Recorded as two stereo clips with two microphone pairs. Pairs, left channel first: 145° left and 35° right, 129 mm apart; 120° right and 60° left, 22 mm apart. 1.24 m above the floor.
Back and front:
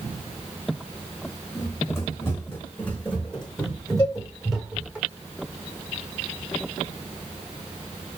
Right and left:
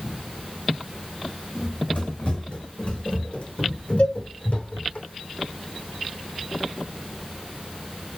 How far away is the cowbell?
About 3 m.